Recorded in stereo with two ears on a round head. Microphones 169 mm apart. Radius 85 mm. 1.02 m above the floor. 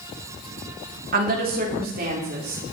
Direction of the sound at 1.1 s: 50° right (ahead or behind).